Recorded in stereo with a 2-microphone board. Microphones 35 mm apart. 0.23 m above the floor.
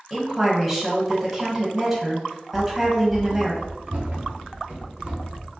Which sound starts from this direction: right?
Running footsteps, at 2.5 s.